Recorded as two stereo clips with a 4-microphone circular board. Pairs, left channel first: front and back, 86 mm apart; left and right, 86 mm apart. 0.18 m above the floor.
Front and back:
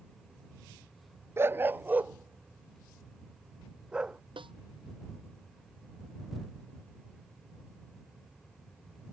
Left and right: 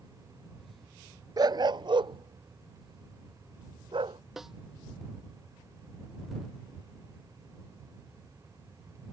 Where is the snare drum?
175° right.